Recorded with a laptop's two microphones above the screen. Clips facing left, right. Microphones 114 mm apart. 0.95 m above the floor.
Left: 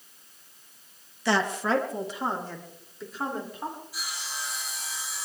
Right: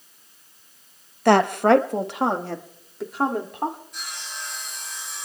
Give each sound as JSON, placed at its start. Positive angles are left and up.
{"t": 1.2, "sound": "a woman speaking", "side_deg": -60, "distance_m": 0.8}
{"t": 3.9, "sound": "sawing", "side_deg": 5, "distance_m": 7.5}